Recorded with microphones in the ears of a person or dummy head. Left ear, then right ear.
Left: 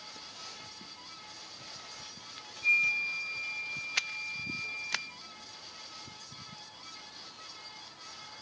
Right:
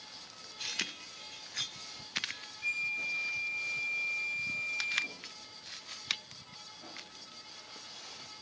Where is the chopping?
I don't hear chopping.